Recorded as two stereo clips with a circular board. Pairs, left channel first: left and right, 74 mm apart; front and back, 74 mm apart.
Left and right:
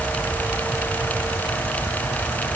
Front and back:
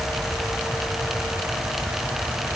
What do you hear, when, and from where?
Only background noise.